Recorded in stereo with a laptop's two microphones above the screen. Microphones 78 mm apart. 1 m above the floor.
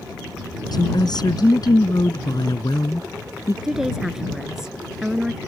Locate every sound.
0.7 s a woman speaking: 60° left (ahead or behind)
3.6 s a woman speaking: 5° right (ahead or behind)